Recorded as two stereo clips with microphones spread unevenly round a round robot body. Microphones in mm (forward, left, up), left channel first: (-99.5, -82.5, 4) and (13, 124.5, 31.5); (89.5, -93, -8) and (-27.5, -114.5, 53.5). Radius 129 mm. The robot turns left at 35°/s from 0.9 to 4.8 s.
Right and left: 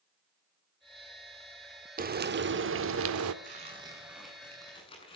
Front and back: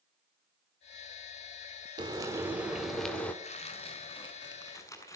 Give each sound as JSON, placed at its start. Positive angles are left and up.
{"t": 2.0, "sound": "frying", "azimuth_deg": 115, "distance_m": 1.8}
{"t": 3.4, "sound": "tearing paper", "azimuth_deg": 0, "distance_m": 6.5}